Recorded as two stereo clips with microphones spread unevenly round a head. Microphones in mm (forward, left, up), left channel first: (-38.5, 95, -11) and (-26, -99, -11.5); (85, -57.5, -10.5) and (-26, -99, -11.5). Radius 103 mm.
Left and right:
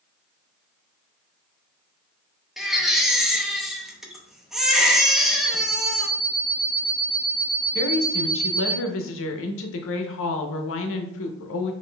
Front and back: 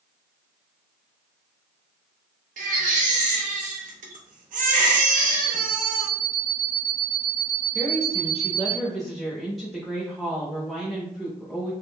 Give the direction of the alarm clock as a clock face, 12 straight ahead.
6 o'clock.